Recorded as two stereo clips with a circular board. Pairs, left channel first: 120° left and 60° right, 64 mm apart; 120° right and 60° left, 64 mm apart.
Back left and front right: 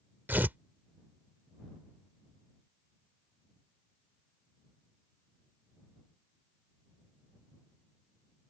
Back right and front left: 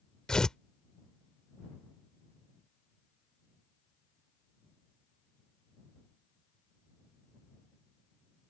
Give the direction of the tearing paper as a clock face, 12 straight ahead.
2 o'clock.